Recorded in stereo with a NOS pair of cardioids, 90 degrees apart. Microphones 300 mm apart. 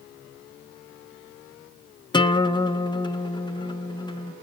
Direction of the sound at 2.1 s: 15° left.